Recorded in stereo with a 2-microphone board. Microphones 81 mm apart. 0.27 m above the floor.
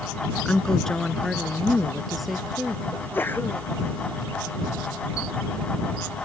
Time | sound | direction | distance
0.5 | a woman speaking | 10° left (ahead or behind) | ?
2.9 | a sneeze | 25° left (ahead or behind) | ?